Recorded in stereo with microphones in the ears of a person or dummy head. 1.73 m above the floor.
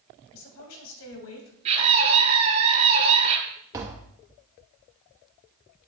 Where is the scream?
35° right (ahead or behind), 4 m.